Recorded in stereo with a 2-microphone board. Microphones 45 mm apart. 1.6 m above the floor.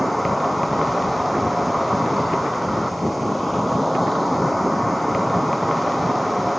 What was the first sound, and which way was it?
An insect, centre (ahead or behind).